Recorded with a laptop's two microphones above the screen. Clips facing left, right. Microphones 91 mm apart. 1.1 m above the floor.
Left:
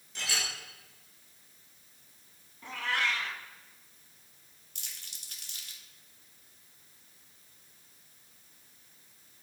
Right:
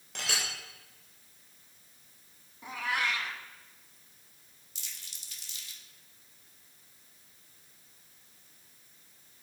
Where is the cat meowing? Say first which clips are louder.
Even; 15° right (ahead or behind), 1.2 m.